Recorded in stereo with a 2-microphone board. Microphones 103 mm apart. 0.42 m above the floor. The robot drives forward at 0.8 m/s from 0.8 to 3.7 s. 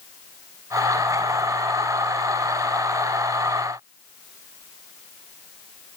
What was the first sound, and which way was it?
Only background noise.